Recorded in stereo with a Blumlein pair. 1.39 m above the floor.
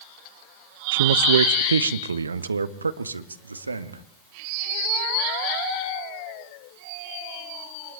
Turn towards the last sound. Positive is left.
turn(degrees=-80)